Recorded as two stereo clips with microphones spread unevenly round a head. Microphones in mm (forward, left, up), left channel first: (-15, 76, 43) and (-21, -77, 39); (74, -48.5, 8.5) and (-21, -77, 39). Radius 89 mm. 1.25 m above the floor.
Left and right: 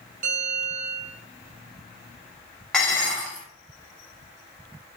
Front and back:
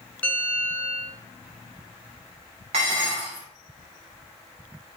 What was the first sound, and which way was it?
A bell, 55° right.